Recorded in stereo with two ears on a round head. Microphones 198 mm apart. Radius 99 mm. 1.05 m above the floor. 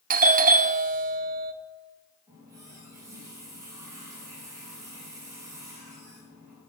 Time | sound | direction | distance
0.1 | a doorbell | 40° right (ahead or behind) | 0.8 m
2.3 | a running tap | 15° right (ahead or behind) | 6.5 m